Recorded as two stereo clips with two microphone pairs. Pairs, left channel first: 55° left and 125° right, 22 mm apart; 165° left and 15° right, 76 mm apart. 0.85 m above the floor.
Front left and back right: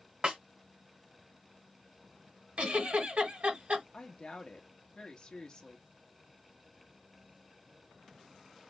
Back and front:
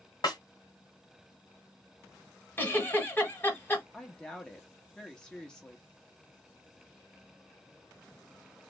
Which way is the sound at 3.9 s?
90° left.